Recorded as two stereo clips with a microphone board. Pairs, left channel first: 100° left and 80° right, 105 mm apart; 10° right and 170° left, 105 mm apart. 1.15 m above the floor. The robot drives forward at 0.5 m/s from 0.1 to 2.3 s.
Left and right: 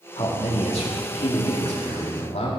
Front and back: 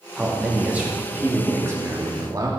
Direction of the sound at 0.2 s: 85° left.